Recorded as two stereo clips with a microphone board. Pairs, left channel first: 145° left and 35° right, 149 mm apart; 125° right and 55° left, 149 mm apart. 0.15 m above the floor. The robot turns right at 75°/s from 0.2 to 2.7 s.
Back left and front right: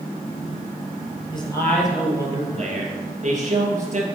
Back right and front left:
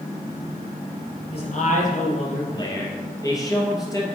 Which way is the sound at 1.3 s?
165° right.